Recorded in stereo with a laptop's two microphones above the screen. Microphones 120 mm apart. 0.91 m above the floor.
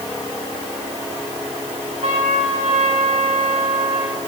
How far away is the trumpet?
About 6.5 m.